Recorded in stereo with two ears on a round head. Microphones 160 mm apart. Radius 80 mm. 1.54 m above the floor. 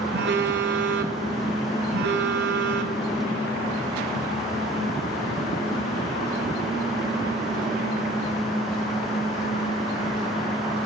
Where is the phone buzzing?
65° right (ahead or behind), 0.6 m.